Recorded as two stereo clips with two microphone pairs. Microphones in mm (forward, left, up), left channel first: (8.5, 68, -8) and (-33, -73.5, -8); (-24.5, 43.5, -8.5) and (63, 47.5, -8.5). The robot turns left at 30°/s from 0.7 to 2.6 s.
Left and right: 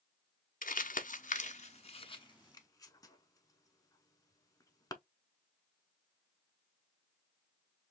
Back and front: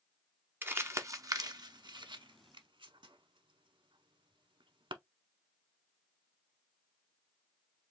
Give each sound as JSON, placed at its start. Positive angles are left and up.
{"t": 0.6, "sound": "crumpling", "azimuth_deg": 65, "distance_m": 0.7}